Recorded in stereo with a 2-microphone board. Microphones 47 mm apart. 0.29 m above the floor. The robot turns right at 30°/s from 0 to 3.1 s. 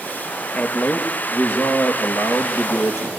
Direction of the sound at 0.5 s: 30° left.